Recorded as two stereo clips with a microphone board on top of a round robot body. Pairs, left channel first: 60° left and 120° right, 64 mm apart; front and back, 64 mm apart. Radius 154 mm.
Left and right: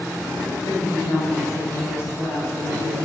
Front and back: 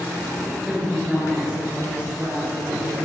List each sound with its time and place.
0.5 s a woman speaking: 90° left, 2.5 m; by 3.0 s 120° left, 4 m